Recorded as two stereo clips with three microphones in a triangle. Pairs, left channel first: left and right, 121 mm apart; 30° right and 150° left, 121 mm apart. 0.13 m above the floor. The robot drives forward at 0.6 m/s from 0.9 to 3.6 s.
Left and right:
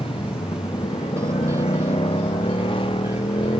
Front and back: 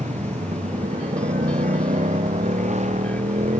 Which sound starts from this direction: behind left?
A motorcycle, at 0.0 s.